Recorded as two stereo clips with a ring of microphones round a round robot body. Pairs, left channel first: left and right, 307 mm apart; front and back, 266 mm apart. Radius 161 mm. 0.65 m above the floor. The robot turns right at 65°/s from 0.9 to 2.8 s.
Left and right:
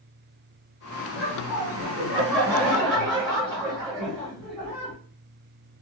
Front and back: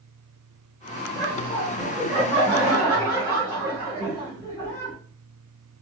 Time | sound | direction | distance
1.1 | laughter | 170° left | 2 m